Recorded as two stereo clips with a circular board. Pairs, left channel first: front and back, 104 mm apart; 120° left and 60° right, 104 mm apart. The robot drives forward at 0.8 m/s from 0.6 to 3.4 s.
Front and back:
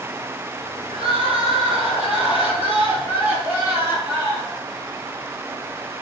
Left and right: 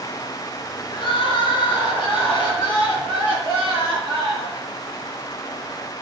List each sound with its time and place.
0.9 s crying: 155° left, 3.5 m; by 4.6 s 165° left, 5.5 m